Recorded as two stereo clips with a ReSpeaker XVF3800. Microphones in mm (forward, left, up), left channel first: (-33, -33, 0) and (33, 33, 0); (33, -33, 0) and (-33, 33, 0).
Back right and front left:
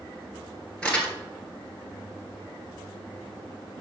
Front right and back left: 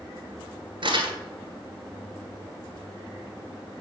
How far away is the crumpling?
About 1.6 m.